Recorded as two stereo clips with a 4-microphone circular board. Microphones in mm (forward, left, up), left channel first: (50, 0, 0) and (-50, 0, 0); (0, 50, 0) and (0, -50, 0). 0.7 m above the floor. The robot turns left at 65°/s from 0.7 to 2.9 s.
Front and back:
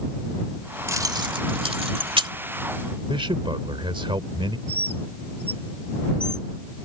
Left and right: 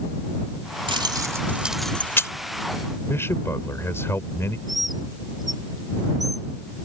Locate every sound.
0.9 s keys jangling: 120° right; by 2.3 s 150° left
3.1 s a man speaking: 155° left
4.7 s a bird: straight behind